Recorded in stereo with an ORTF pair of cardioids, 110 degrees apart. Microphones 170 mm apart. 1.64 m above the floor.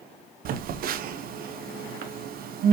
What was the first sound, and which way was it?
A phone buzzing, 60° right.